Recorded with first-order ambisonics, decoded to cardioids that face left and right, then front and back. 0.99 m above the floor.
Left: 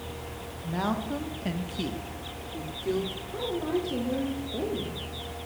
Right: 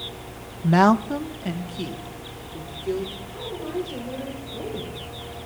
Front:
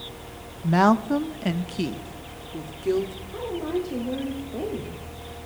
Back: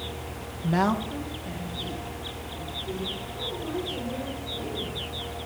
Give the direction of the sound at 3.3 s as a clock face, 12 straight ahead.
11 o'clock.